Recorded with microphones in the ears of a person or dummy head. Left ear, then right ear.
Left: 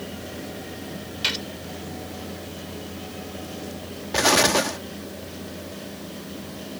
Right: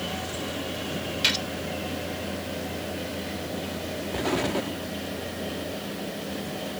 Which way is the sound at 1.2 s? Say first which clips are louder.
Right 1 dB; 5° right (ahead or behind).